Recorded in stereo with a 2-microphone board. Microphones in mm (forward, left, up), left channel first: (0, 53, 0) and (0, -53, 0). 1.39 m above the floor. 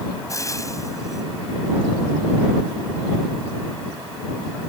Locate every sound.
0.3 s frying: 30° left (ahead or behind)